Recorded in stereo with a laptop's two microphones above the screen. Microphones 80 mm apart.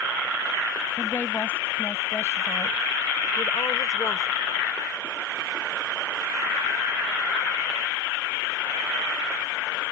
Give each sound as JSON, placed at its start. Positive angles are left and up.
{"t": 1.0, "sound": "a woman speaking", "side_deg": 30}